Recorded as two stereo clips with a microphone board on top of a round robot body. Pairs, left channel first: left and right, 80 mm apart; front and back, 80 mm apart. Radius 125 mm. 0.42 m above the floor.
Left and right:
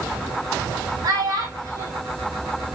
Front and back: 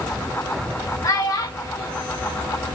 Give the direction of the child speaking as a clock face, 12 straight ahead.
2 o'clock.